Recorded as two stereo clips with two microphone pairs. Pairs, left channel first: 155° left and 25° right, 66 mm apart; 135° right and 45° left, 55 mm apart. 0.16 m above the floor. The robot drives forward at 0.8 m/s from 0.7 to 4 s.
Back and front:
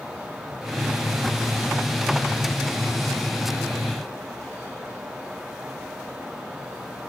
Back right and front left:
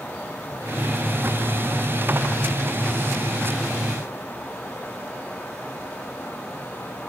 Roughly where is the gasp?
No gasp in this recording.